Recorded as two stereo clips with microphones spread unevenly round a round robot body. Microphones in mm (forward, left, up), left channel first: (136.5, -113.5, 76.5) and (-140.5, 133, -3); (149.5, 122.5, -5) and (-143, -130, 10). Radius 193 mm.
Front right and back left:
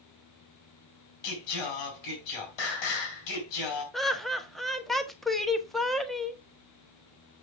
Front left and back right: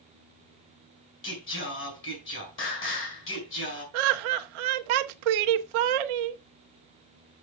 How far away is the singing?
About 4.5 m.